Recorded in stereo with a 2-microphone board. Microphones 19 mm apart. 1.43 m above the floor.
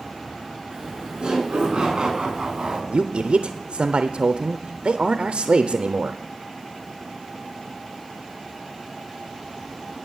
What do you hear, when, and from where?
0.7 s laughter: 40° right (ahead or behind), 5 m
2.9 s a man speaking: 60° right (ahead or behind), 0.6 m